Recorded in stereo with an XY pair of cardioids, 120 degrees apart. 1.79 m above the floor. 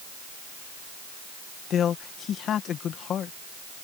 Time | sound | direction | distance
1.7 | a man speaking | 55° left | ?